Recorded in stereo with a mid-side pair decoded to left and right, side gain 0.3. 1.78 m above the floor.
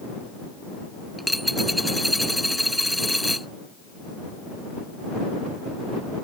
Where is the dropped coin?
Straight ahead.